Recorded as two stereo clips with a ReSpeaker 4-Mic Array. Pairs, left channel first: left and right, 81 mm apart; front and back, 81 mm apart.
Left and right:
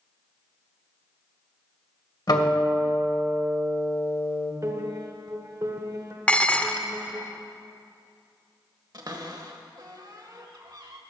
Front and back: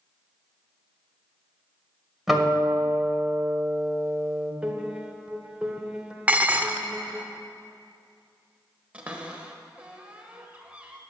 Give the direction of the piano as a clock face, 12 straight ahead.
4 o'clock.